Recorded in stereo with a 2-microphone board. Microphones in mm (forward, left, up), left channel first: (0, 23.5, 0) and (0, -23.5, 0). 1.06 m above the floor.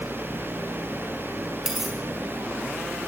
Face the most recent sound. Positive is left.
turn(degrees=-10)  # may be behind; listen again after turning